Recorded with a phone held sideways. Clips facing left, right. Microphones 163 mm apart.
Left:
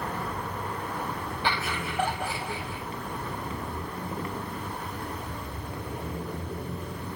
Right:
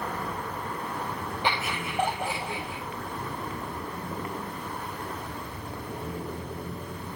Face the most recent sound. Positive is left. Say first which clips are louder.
# even
turn(degrees=-20)  # may be behind; listen again after turning